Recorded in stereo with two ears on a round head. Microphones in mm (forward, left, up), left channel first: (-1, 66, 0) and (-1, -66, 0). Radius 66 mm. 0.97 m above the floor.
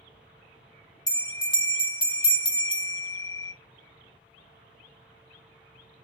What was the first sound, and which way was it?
A bell, 30° left (ahead or behind).